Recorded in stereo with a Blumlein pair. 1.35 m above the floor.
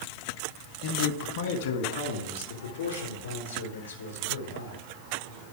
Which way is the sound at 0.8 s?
45° left.